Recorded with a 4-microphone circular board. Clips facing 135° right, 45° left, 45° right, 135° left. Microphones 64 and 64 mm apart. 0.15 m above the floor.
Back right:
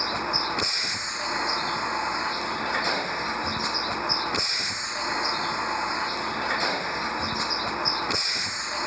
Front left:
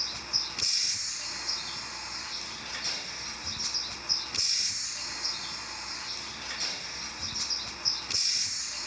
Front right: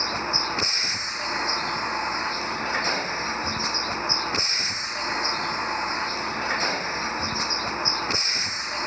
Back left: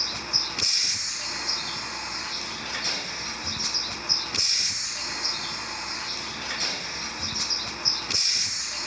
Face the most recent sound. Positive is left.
turn(degrees=-95)